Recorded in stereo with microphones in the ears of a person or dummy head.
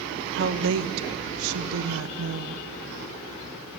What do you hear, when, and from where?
0.3 s a woman speaking: 65° right (ahead or behind), 1.0 m; by 2.7 s 60° right (ahead or behind), 1.9 m